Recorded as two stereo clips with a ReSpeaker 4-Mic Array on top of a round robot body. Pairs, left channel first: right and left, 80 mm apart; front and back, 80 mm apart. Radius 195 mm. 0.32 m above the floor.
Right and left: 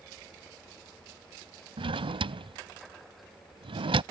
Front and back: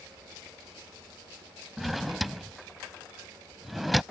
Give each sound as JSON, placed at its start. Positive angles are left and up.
{"t": 1.8, "sound": "a drawer", "azimuth_deg": 90}